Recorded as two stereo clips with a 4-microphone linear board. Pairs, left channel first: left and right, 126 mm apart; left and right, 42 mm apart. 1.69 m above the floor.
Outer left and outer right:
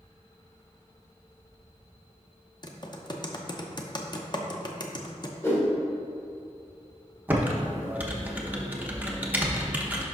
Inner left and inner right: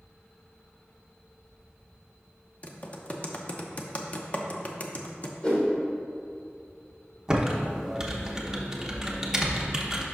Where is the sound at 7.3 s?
15° right (ahead or behind), 0.9 m.